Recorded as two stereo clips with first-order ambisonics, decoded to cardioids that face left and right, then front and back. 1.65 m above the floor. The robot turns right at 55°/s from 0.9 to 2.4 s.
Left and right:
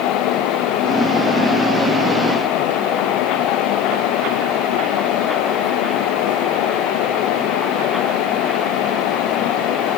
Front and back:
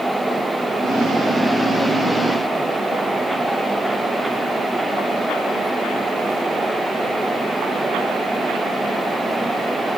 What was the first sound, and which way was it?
Only background noise.